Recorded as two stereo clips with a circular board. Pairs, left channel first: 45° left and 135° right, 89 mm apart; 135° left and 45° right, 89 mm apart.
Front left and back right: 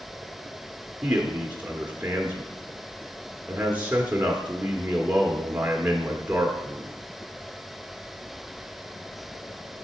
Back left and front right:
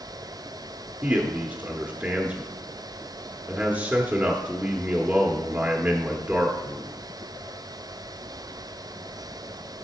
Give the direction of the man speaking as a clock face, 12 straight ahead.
3 o'clock.